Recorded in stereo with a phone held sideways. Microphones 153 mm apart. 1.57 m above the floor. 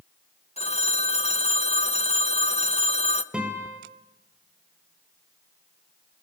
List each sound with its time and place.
0.6 s a phone ringing: 45° left (ahead or behind), 0.9 m
3.3 s a guitar: 5° right (ahead or behind), 4.5 m